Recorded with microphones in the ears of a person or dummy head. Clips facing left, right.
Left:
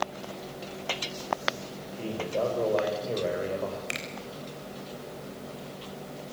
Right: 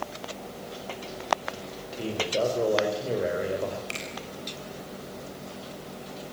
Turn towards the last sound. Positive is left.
turn(degrees=20)  # may be behind; listen again after turning